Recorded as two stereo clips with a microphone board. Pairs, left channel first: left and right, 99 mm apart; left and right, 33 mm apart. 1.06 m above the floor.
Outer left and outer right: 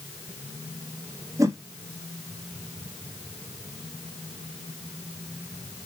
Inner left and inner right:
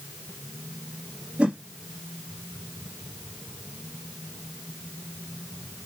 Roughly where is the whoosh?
Right.